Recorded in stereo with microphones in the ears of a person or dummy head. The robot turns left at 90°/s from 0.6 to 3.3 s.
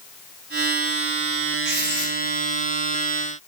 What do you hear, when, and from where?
1.6 s writing: 125° right, 1.1 m; by 2.1 s 170° right, 1.1 m